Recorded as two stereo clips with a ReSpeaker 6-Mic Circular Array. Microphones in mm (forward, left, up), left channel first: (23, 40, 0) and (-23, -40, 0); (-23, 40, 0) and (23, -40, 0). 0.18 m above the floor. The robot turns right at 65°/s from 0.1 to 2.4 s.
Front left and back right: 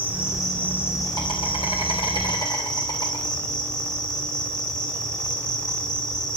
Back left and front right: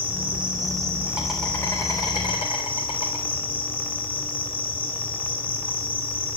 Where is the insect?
50° right, 3 m; by 6.4 s 100° left, 3 m.